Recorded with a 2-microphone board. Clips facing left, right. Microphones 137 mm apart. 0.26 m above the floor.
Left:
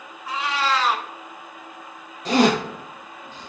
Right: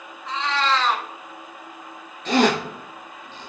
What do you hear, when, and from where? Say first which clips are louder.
0.3 s a cat meowing: right 1 dB; 10° left (ahead or behind), 0.9 m
2.2 s a zipper: left 1 dB; 40° left (ahead or behind), 4 m